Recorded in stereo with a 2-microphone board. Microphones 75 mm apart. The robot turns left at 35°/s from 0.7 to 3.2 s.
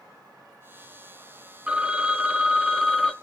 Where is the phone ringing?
15° right (ahead or behind), 0.6 m; by 3.1 s centre (ahead or behind), 0.6 m.